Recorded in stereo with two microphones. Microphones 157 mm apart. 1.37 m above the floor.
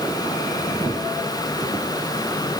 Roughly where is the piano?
No piano in this recording.